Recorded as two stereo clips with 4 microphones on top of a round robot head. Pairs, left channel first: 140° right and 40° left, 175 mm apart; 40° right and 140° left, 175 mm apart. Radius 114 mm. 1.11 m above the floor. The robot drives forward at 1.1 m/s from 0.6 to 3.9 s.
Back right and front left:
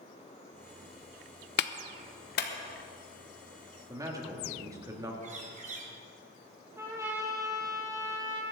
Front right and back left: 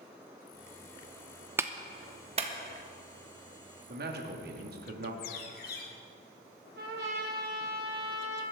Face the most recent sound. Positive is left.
turn(degrees=115)